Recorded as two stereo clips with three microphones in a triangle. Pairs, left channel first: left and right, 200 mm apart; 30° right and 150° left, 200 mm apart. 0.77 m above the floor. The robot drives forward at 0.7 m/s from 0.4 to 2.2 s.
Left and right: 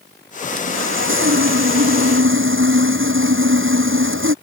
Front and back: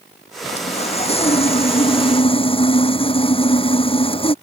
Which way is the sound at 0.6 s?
90° right.